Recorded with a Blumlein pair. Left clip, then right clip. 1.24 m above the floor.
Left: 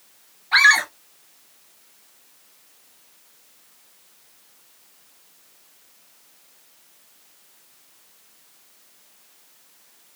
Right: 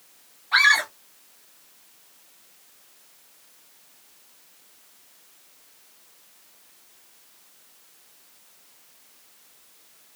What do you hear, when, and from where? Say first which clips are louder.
0.5 s a scream: left 3 dB; 15° left, 2.5 m